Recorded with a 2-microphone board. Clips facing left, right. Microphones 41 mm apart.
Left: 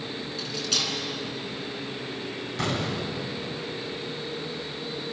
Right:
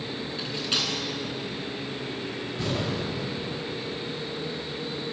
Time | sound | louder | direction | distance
0.4 | cutlery clinking | right 1 dB | 25° right (ahead or behind) | 4.5 m
2.6 | an explosion | left 1 dB | 80° left | 5 m